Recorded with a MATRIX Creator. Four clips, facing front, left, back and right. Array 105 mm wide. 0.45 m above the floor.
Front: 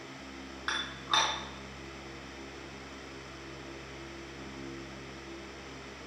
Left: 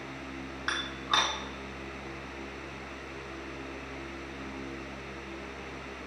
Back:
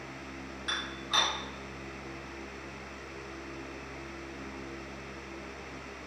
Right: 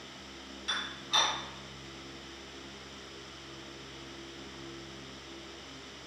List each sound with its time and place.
0.7 s dishes clattering: 50° left, 3 m